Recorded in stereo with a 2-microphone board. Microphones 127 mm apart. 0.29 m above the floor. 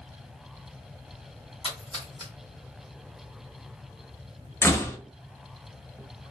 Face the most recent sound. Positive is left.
turn(degrees=20)  # may be behind; listen again after turning